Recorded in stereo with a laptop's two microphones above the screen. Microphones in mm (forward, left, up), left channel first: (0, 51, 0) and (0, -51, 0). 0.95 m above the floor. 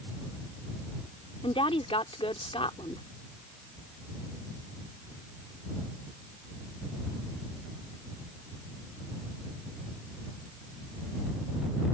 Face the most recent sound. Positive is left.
turn(degrees=65)  # may be behind; listen again after turning